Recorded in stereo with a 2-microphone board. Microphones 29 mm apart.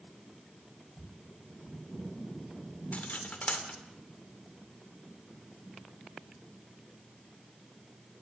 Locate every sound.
2.9 s cutlery clinking: 55° left (ahead or behind), 2.5 m